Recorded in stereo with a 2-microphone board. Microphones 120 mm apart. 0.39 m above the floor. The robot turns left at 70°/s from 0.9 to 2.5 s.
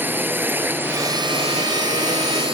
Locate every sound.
0.0 s a drone: 15° right; by 2.5 s 130° right